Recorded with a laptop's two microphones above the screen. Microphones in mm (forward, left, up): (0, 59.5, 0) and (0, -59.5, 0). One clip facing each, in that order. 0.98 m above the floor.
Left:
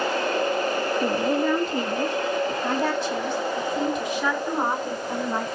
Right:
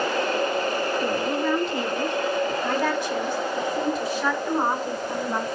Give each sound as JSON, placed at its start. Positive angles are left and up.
{"t": 1.0, "sound": "a woman speaking", "side_deg": 60, "distance_m": 1.4}